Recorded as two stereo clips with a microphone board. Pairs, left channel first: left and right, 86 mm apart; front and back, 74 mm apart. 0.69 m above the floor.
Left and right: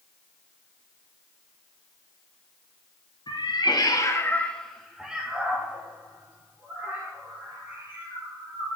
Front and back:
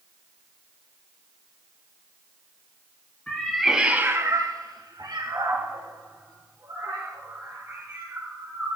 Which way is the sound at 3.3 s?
80° left.